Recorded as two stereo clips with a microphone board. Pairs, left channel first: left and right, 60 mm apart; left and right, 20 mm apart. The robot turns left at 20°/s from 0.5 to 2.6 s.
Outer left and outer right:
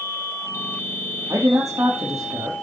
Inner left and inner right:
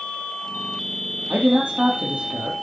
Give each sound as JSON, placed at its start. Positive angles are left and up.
{"t": 1.3, "sound": "a man speaking", "side_deg": -75, "distance_m": 4.0}